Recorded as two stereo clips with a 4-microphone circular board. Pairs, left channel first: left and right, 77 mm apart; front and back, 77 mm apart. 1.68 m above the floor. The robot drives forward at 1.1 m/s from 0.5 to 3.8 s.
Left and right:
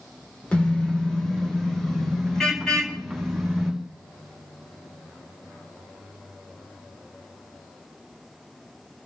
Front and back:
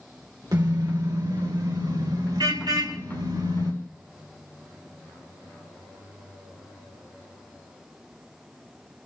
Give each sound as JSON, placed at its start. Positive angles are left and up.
{"t": 0.5, "sound": "a car horn", "azimuth_deg": 160, "distance_m": 2.5}